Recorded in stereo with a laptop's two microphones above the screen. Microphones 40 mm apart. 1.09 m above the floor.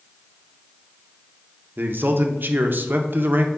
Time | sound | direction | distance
1.8 | a man speaking | 55° right (ahead or behind) | 0.5 m